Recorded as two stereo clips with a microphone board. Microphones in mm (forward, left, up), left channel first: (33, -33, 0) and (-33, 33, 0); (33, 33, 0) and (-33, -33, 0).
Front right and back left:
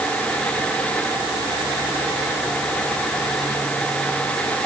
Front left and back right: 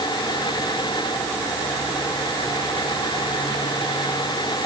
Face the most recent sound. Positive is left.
No sound to turn to.